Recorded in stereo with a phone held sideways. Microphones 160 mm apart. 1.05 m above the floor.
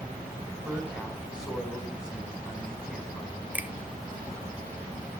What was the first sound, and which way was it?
A man speaking, 5° right (ahead or behind).